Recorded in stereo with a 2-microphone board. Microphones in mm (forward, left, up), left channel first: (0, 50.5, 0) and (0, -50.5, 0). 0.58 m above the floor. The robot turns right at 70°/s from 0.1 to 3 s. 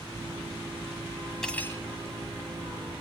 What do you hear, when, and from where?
1.4 s cutlery clinking: 5° left (ahead or behind), 2.0 m; by 1.8 s 35° left (ahead or behind), 2.0 m